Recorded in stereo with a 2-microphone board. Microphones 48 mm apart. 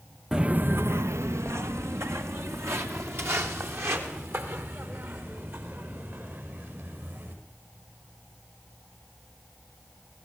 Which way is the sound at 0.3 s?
15° right (ahead or behind).